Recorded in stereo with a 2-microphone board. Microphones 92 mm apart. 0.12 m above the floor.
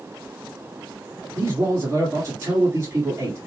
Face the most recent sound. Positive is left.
turn(degrees=-30)  # may be behind; listen again after turning